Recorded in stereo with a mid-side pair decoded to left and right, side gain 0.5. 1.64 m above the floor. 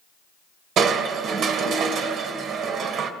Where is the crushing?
65° right, 1.7 m.